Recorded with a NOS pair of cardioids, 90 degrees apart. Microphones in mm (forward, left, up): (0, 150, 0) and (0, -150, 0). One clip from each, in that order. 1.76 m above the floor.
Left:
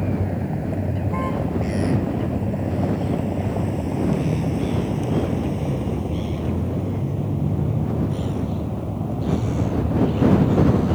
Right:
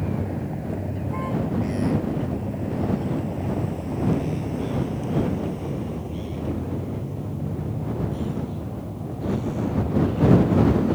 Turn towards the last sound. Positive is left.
turn(degrees=50)